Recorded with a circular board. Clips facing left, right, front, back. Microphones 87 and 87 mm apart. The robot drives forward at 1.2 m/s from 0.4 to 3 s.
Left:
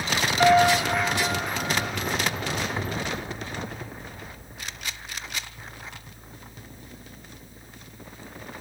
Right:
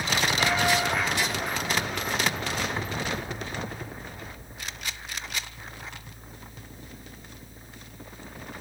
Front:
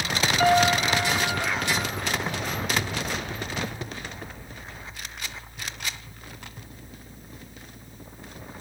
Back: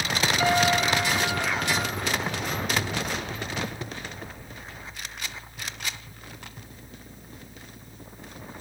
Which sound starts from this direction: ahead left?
A piano, at 0.4 s.